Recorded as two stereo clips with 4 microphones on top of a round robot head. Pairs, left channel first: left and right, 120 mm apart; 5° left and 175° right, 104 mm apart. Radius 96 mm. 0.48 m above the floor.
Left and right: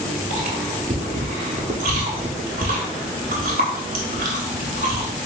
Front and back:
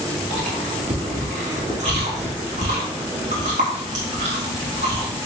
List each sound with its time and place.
0.3 s chewing: 130° right, 0.6 m